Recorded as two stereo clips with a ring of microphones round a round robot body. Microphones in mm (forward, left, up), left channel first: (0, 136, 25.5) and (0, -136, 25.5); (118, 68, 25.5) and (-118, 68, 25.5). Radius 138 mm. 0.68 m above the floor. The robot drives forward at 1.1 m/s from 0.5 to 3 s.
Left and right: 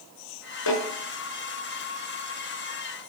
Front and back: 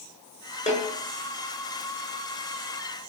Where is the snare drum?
60° left, 6.5 m.